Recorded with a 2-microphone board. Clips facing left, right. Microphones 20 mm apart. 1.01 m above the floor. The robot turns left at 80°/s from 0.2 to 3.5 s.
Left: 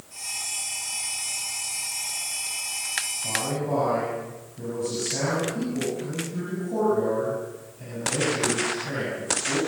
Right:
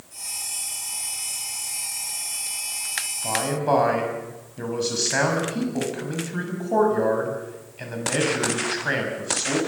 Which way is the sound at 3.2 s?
35° right (ahead or behind).